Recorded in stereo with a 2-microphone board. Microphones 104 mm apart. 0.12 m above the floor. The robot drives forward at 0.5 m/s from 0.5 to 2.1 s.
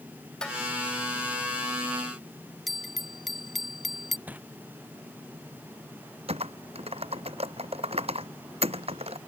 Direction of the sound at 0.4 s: 10° left (ahead or behind).